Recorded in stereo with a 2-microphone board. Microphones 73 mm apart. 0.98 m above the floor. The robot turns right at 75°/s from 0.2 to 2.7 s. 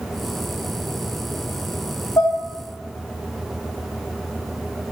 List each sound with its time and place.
2.2 s dishes clattering: 45° left (ahead or behind), 1.6 m; by 2.3 s 55° left (ahead or behind), 1.6 m